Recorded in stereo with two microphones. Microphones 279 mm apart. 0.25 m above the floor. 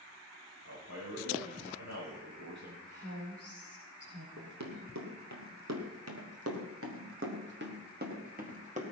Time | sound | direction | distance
0.7 | a man speaking | 70° right (ahead or behind) | 9.5 m
2.9 | a woman speaking | 55° right (ahead or behind) | 9 m
4.4 | running footsteps | 85° right | 4 m